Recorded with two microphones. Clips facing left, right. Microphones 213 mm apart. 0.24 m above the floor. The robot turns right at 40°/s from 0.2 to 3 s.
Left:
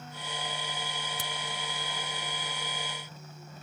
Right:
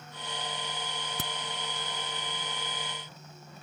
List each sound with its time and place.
1.2 s a crack: 70° right (ahead or behind)